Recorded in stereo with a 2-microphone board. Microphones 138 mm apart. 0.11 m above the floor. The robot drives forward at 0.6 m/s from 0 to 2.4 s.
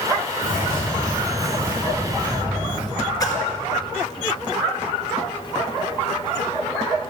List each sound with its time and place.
0.4 s a bird: 35° left (ahead or behind), 4.5 m; by 2.8 s 25° left (ahead or behind), 5.5 m
3.2 s a splash: 25° left (ahead or behind), 1.7 m